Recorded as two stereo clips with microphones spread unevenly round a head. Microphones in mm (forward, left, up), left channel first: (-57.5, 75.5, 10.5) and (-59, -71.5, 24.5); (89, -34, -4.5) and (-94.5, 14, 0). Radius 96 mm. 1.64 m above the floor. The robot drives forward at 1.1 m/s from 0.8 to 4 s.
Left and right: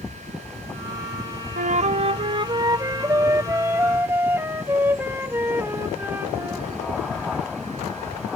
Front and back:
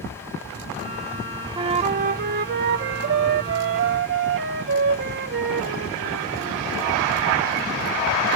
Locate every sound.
1.6 s a flute: 125° right; by 6.7 s 165° right